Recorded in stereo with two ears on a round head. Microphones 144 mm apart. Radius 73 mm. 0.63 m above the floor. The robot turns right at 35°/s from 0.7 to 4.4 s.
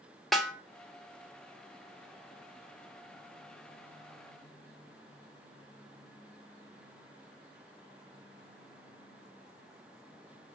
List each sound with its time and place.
0.3 s a snare drum: centre (ahead or behind), 0.5 m